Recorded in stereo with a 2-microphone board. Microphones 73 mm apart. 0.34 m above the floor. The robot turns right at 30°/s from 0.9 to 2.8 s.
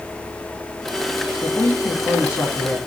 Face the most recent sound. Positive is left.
turn(degrees=65)